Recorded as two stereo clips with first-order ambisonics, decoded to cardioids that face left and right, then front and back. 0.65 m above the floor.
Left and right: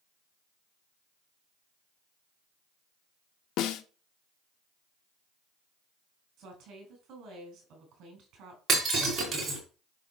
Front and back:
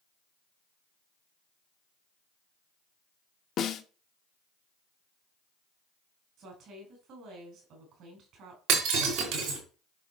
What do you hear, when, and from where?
3.6 s a snare drum: 55° left, 0.8 m
6.4 s a woman speaking: 135° right, 4.5 m
8.7 s breaking glass: 160° right, 4.5 m